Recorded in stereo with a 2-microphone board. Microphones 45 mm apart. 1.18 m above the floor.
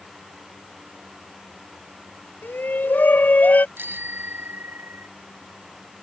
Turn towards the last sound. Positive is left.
turn(degrees=-50)  # may be behind; listen again after turning